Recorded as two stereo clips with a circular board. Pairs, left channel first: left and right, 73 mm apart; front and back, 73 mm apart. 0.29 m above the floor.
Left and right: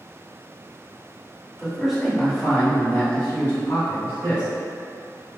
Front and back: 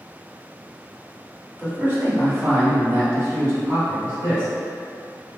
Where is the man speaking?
160° right, 1.2 m; by 4.5 s 140° left, 2 m.